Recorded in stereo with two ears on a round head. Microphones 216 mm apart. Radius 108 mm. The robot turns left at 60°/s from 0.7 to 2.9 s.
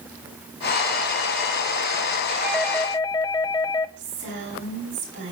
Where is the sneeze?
I don't hear a sneeze.